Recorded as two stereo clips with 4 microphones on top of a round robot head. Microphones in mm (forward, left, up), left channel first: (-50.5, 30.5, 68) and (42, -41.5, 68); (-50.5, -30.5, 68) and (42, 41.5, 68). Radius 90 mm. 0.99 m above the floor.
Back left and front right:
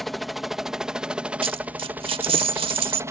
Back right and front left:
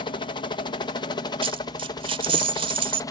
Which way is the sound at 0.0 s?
130° right.